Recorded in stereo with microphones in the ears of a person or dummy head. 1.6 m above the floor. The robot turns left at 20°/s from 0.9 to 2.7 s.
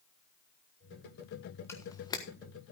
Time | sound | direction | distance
1.7 | a camera shutter | 15° left (ahead or behind) | 1.4 m